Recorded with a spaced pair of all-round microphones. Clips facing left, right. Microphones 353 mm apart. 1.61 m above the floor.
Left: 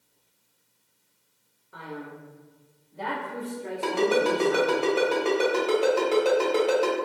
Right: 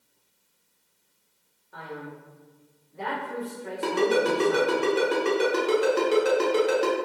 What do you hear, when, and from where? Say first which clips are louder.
1.7 s a man speaking: even; 5° left (ahead or behind), 0.9 m; by 4.8 s 80° left, 1.6 m
3.8 s a ringtone: even; 20° right (ahead or behind), 0.8 m